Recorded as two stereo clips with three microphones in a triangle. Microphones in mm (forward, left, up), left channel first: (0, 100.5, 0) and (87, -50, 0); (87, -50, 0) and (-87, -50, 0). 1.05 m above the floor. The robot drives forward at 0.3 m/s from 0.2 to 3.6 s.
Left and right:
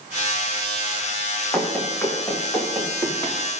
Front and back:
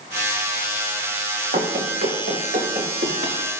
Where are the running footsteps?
155° right, 2.5 m; by 3.4 s 170° right, 4 m.